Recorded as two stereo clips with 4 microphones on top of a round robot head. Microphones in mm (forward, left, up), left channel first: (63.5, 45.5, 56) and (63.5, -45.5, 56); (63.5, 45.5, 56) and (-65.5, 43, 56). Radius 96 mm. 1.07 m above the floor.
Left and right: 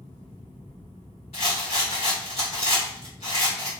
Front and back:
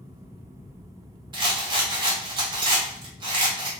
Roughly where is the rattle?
Behind left.